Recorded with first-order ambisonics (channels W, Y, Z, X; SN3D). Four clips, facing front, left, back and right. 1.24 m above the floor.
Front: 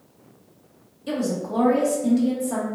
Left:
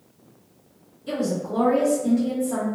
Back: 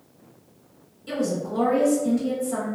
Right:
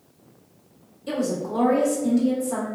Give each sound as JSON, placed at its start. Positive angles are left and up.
{"t": 1.1, "sound": "a woman speaking", "azimuth_deg": -10, "distance_m": 1.5}